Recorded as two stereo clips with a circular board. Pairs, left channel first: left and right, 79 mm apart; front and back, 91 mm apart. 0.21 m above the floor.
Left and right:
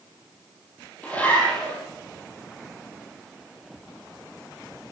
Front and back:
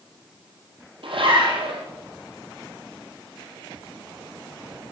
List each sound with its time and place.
1.0 s a zipper: 160° left, 5 m